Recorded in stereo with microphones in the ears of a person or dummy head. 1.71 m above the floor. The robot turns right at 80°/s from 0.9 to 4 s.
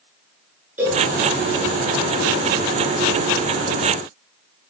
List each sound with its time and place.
0.8 s a cowbell: 10° right (ahead or behind), 6.5 m; by 1.0 s centre (ahead or behind), 6.5 m